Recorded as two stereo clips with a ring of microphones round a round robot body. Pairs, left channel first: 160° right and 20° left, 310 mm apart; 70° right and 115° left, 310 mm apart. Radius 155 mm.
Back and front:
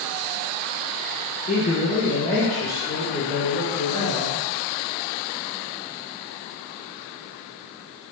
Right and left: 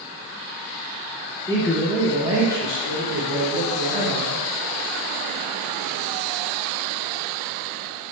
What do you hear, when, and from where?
1.5 s a man speaking: 130° right, 0.8 m; by 4.4 s 95° left, 1.5 m